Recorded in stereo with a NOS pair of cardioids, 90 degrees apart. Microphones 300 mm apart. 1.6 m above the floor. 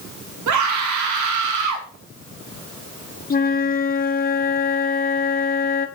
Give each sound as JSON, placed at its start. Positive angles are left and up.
{"t": 0.5, "sound": "a scream", "azimuth_deg": -65, "distance_m": 2.5}
{"t": 3.3, "sound": "a flute", "azimuth_deg": 30, "distance_m": 1.2}